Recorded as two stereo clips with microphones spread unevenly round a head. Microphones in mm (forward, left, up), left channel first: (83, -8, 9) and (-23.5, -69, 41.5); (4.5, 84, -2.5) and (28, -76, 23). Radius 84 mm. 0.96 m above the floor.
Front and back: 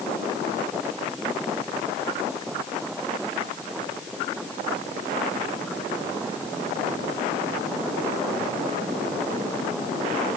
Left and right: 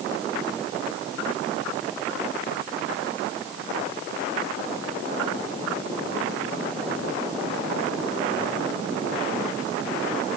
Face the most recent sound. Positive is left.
No sound to turn to.